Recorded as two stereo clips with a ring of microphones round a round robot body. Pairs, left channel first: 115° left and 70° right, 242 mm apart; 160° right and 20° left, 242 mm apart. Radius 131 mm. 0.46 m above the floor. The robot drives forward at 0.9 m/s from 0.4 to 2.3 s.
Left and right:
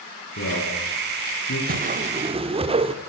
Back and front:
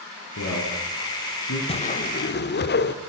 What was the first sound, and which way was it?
A man speaking, 165° left.